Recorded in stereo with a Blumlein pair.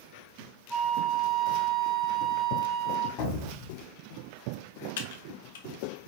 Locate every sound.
0.7 s a flute: 5° right, 1.3 m
3.2 s an explosion: 40° left, 2 m
5.0 s typing on a keyboard: 55° left, 1.1 m